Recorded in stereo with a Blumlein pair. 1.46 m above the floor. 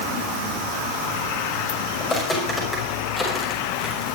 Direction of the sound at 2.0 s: 15° left.